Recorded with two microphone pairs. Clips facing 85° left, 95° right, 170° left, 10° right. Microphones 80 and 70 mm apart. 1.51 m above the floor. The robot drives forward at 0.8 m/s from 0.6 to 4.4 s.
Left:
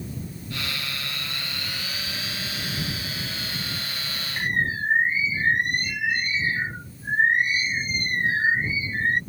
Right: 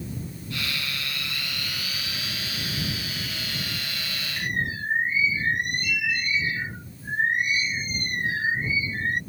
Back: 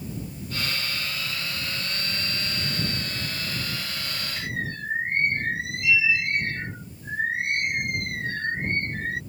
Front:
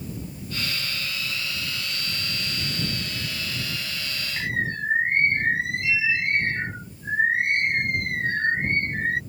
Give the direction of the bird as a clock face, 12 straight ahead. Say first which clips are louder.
Left 4 dB, front 6 dB; 11 o'clock.